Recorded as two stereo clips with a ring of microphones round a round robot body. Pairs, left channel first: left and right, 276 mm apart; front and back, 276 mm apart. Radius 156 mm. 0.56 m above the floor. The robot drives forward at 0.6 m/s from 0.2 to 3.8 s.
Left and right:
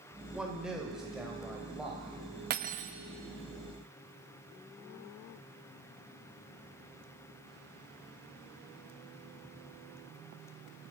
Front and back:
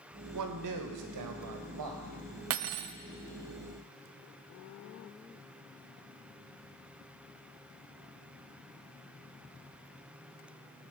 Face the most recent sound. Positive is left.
turn(degrees=-165)